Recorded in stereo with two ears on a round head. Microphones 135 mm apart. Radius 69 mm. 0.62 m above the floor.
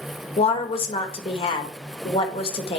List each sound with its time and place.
0.4 s a woman speaking: 35° left (ahead or behind), 1.6 m